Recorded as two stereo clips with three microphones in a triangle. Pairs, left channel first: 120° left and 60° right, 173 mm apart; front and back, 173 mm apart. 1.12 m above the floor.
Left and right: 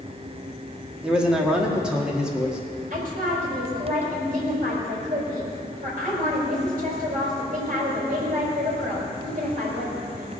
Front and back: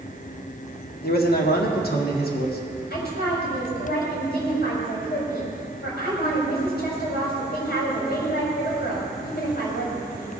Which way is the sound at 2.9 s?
20° right.